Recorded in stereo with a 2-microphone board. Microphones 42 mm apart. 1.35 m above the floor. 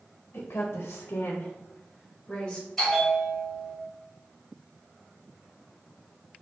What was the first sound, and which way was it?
A woman speaking, 55° left (ahead or behind).